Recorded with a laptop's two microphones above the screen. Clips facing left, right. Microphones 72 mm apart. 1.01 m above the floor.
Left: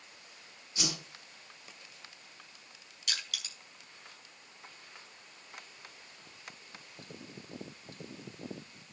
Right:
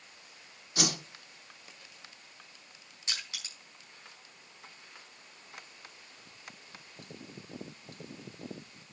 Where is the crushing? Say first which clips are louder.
Left 1 dB; 30° right (ahead or behind), 5.5 m.